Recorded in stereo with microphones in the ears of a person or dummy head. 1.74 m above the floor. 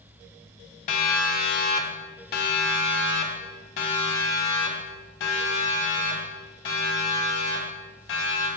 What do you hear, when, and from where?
0.9 s a siren: 50° left (ahead or behind), 2.5 m; by 8.5 s 80° left, 7.5 m